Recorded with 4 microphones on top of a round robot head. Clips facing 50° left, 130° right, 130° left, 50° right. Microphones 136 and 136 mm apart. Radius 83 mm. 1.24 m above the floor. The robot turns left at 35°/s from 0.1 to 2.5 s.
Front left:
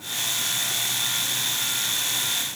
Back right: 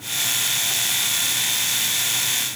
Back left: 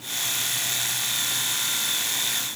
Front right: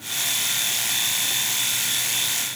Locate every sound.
Only background noise.